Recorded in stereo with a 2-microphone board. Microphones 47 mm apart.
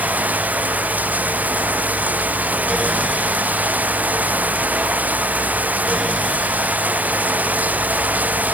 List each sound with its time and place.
0.0 s running water: 35° right (ahead or behind)